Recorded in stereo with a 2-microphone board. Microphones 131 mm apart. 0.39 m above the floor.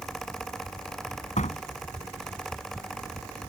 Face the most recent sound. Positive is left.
turn(degrees=65)  # may be behind; listen again after turning